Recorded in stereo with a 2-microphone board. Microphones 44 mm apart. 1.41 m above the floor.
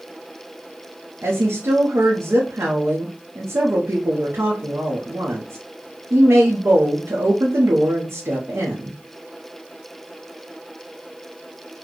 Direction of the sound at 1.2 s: 75° right (ahead or behind).